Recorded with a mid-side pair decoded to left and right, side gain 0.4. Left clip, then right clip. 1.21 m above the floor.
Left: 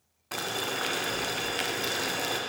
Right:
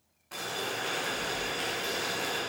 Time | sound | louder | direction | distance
0.3 | boiling | left 3 dB | 70° left | 1.0 m